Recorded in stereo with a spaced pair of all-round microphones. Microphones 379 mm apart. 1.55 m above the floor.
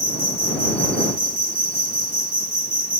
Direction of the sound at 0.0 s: 70° right (ahead or behind).